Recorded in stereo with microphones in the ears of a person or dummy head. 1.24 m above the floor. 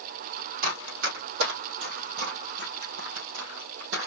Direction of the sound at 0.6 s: 50° right (ahead or behind).